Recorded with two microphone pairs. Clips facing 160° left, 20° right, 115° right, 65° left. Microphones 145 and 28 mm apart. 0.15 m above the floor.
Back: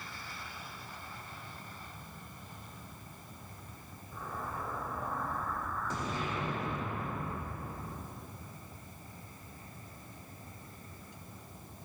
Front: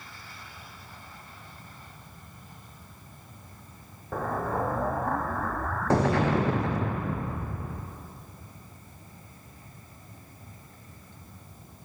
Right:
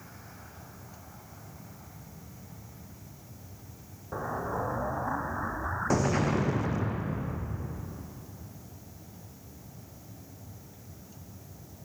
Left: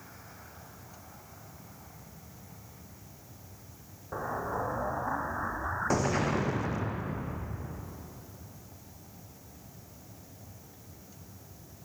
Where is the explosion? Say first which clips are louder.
Front 12 dB, right 1 dB; 30° right, 1.6 m.